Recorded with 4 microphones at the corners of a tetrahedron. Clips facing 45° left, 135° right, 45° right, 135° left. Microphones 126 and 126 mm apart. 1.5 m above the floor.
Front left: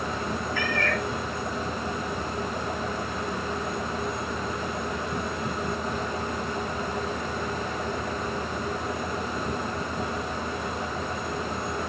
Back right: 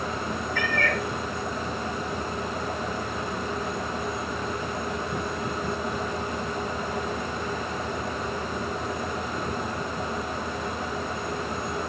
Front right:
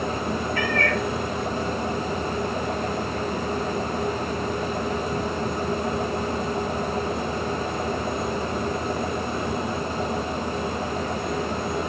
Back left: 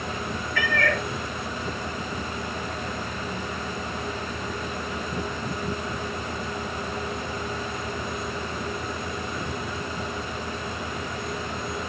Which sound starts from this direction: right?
A cat meowing, at 0.6 s.